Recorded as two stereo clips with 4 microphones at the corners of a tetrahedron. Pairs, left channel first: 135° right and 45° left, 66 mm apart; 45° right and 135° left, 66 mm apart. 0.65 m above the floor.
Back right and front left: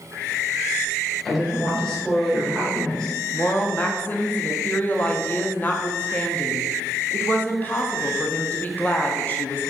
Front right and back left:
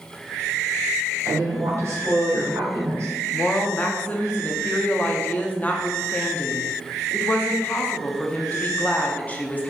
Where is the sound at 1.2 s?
145° left, 1.4 m.